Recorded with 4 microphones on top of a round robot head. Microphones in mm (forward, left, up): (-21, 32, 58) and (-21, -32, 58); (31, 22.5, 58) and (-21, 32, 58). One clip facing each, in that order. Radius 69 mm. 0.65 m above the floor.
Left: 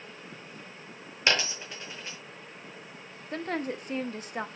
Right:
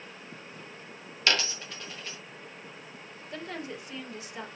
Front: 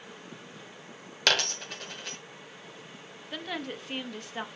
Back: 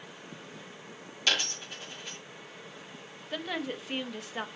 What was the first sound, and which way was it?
A dropped coin, 15° left.